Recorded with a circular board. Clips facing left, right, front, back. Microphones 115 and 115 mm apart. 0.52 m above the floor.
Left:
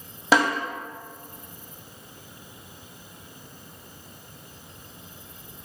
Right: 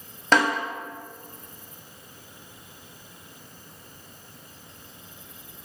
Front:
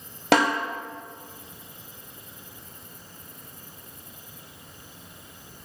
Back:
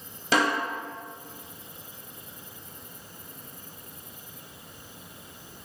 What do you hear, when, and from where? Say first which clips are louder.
0.3 s a snare drum: left 1 dB, front 4 dB; 10° left, 0.6 m